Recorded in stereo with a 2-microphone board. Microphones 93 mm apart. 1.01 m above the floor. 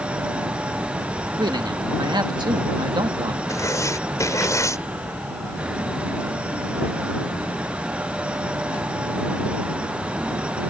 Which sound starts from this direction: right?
A man speaking, at 1.4 s.